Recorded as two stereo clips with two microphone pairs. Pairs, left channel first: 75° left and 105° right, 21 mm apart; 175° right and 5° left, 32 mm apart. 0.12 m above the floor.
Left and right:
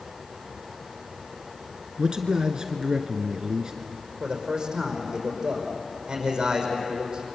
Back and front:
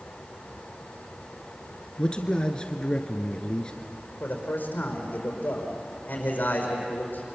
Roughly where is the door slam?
No door slam in this recording.